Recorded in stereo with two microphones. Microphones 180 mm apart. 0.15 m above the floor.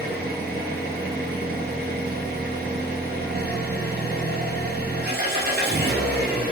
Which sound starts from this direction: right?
An engine running, at 0.0 s.